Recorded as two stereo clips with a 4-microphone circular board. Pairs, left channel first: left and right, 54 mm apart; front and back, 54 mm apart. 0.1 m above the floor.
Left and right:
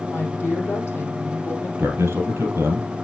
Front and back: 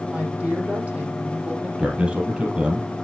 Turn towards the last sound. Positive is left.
turn(degrees=-115)